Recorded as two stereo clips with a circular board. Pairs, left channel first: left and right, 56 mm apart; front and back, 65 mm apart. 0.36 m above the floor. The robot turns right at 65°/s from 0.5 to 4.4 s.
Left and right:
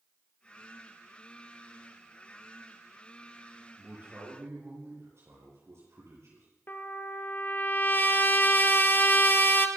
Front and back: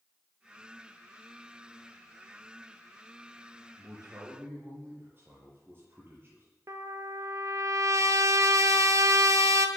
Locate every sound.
3.8 s a man speaking: 165° right, 7 m; by 6.5 s 125° right, 7 m
6.7 s a trumpet: 145° left, 1.2 m